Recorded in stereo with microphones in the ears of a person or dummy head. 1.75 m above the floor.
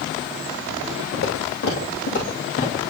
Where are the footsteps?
45° left (ahead or behind), 3 m; by 2.8 s 35° left (ahead or behind), 2 m.